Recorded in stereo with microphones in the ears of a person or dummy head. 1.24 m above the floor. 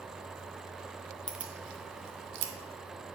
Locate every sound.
1.3 s keys jangling: centre (ahead or behind), 0.9 m; by 2.5 s 70° right (ahead or behind), 1.0 m